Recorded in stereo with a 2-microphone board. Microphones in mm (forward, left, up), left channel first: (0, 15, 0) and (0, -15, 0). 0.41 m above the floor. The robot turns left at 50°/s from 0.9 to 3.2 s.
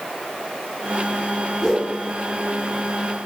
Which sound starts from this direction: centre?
A whoosh, at 1.6 s.